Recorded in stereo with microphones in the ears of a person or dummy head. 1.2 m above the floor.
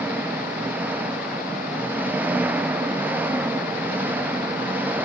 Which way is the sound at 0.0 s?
5° right (ahead or behind).